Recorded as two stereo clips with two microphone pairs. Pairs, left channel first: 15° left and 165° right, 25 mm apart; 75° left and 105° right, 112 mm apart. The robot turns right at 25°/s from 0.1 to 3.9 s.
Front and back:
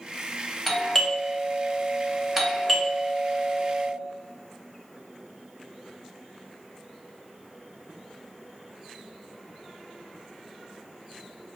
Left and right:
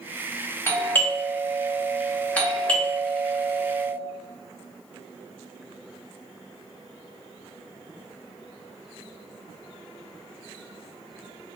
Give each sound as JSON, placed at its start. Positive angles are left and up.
{"t": 0.7, "sound": "a doorbell", "azimuth_deg": 85, "distance_m": 0.6}